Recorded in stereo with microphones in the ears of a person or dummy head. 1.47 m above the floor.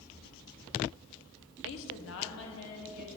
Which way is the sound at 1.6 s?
70° left (ahead or behind).